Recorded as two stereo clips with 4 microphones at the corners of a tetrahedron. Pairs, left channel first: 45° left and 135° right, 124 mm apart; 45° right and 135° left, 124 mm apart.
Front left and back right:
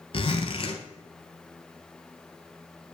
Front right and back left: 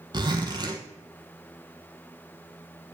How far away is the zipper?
About 1.2 m.